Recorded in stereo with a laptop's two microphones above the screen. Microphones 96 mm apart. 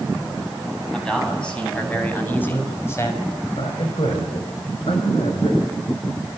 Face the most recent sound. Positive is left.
turn(degrees=85)